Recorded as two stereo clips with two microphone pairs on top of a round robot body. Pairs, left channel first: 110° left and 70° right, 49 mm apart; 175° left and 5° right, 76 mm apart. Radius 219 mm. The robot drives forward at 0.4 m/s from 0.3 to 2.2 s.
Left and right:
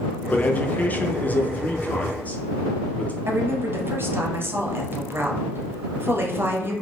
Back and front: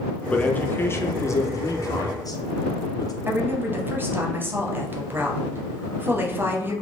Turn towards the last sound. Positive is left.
turn(degrees=-55)